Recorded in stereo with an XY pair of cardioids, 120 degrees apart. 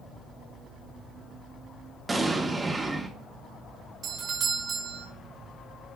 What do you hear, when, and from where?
2.1 s an explosion: 20° right, 1.3 m
4.0 s a doorbell: 55° right, 2.5 m